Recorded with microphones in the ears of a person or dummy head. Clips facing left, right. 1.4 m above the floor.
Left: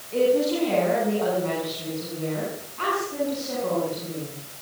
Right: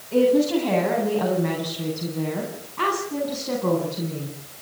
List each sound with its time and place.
0.1 s a woman speaking: 85° right, 8 m